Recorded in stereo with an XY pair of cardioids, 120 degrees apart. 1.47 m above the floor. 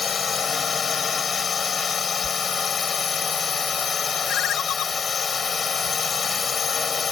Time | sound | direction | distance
0.0 | a drone | 35° left | ?
2.2 | a sliding door | 35° left | ?
4.3 | a ringtone | 65° left | ?